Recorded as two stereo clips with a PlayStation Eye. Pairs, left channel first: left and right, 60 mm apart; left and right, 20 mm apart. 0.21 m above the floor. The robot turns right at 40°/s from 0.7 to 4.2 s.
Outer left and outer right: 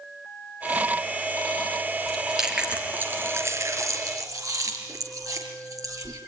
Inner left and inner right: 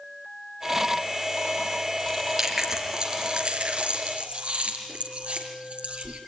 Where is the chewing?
5° left (ahead or behind), 4.5 m; by 6.2 s 70° right (ahead or behind), 4.5 m.